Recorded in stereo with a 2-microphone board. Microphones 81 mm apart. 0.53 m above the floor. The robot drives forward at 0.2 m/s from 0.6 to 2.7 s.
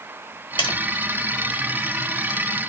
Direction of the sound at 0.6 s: 80° left.